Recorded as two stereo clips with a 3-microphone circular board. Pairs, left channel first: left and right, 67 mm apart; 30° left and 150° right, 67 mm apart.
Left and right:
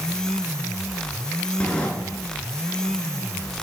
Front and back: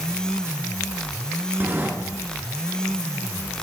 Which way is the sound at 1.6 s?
155° left.